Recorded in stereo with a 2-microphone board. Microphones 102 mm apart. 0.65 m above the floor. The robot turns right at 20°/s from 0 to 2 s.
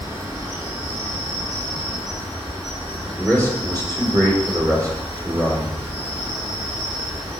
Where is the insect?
140° right, 3 m; by 7.4 s 100° right, 3 m.